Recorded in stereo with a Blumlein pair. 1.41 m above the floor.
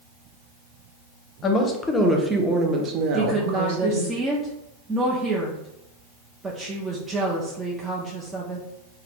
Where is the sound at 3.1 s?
10° right, 0.7 m.